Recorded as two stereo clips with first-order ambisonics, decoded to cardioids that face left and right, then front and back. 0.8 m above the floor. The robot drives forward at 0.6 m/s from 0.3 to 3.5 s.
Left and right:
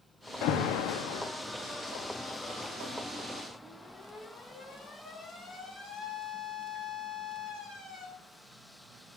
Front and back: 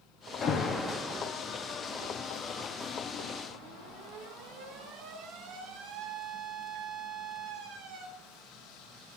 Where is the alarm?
55° left, 0.6 m; by 8.1 s 160° left, 1.6 m.